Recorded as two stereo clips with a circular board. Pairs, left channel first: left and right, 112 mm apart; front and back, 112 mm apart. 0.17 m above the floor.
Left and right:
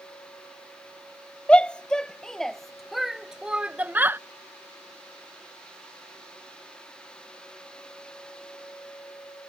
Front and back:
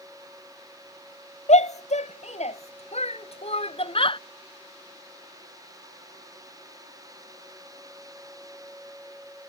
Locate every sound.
1.5 s a shout: 10° left; by 4.2 s 25° right